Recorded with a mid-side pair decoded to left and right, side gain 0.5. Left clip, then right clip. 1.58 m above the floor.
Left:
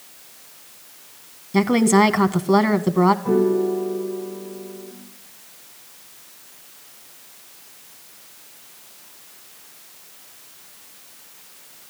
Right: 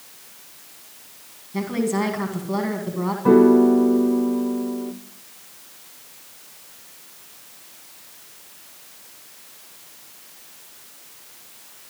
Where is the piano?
70° right, 1.1 m.